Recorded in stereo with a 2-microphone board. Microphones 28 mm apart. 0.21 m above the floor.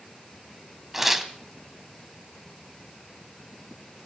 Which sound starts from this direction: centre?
Tearing paper, at 0.9 s.